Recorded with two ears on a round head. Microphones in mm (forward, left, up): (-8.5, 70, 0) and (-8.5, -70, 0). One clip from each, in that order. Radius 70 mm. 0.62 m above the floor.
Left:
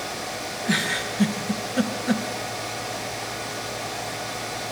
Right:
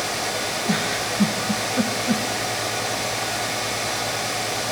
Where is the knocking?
No knocking in this recording.